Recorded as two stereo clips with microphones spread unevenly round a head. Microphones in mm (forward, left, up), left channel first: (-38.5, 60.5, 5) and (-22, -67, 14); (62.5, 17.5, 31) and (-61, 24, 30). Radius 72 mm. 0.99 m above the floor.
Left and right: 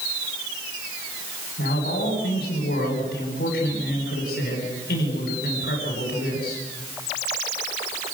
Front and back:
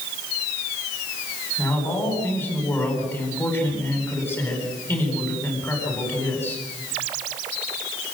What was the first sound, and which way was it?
A man speaking, 70° left.